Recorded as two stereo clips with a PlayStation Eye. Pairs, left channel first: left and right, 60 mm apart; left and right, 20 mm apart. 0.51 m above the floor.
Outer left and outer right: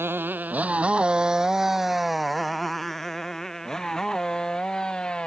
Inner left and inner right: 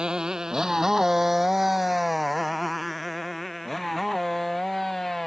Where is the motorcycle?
40° right (ahead or behind); by 5.3 s 15° left (ahead or behind).